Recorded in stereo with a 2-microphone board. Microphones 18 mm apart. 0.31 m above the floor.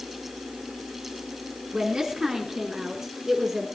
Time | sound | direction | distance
1.7 | a woman speaking | 40° right (ahead or behind) | 2.5 m